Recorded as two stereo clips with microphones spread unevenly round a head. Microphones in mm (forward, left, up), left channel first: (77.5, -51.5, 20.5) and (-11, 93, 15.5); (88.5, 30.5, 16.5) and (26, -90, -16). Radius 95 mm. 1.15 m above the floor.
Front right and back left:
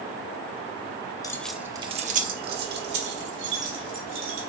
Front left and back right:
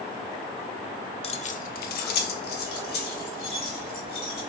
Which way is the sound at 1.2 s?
10° left.